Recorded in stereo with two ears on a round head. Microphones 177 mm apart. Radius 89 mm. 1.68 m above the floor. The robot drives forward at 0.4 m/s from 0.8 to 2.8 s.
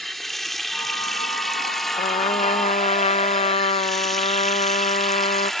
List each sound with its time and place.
0.0 s running water: centre (ahead or behind)
2.0 s a trumpet: 30° left (ahead or behind); by 5.5 s 35° left (ahead or behind)